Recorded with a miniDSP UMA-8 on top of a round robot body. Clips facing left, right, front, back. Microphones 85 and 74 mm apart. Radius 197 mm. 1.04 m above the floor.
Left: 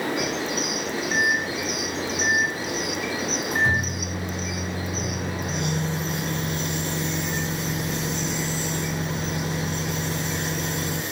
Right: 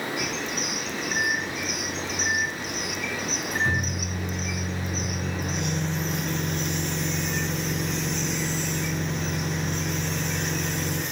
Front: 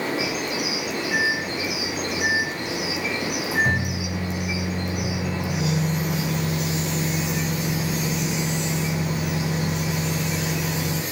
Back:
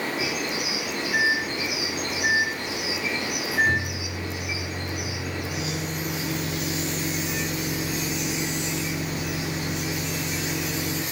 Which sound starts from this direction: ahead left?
A microwave, at 1.1 s.